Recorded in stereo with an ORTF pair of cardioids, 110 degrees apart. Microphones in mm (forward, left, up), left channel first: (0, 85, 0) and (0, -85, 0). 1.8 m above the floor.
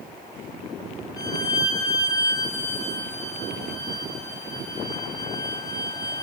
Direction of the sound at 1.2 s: 20° left.